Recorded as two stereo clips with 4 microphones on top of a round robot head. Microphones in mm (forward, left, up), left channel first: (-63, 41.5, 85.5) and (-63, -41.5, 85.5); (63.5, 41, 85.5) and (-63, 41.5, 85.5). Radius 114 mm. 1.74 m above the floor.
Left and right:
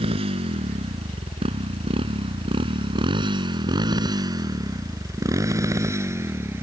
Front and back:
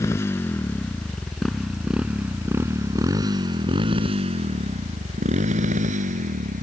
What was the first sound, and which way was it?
A motorcycle, 75° right.